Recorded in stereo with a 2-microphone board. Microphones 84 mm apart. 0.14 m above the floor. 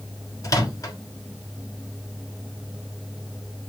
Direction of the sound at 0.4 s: 45° left (ahead or behind).